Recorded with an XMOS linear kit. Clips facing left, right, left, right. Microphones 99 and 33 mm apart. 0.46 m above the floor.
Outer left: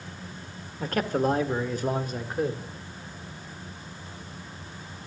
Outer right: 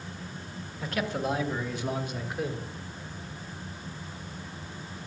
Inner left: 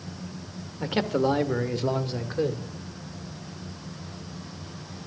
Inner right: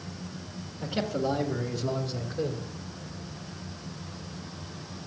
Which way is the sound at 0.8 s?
45° left (ahead or behind).